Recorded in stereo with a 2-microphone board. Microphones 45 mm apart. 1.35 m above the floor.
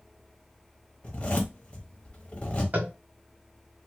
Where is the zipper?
25° left (ahead or behind), 1.0 m.